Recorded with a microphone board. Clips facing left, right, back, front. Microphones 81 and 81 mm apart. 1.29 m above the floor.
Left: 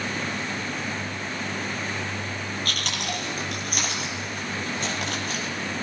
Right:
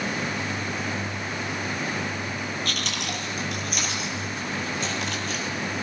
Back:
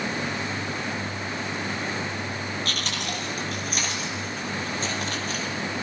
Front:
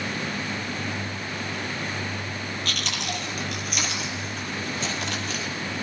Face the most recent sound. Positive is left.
turn(degrees=130)